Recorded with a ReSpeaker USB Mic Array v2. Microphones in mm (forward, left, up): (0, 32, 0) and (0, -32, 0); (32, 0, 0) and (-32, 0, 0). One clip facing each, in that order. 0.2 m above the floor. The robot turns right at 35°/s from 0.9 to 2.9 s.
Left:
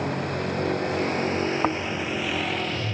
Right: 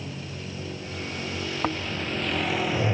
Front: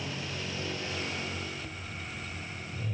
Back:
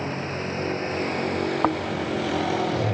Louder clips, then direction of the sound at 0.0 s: Left 10 dB, back 9 dB; 125° left.